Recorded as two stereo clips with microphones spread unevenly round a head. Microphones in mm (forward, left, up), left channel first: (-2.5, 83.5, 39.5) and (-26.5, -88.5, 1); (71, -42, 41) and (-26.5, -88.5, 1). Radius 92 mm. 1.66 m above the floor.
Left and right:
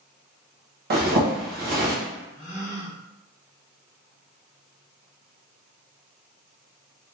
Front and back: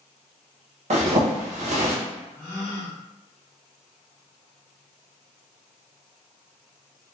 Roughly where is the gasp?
Left.